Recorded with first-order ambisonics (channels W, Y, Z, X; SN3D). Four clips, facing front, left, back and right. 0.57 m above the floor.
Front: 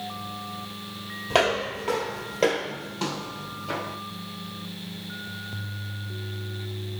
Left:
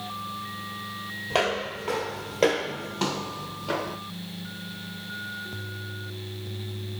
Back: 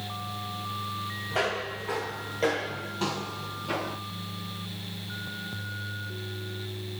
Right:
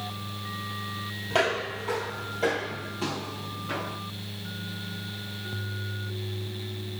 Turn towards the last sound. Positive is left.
turn(degrees=100)